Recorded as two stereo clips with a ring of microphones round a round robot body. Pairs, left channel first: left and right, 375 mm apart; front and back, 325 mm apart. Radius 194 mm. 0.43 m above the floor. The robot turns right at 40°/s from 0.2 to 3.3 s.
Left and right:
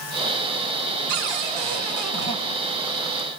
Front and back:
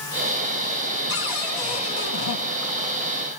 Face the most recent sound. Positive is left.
turn(degrees=-15)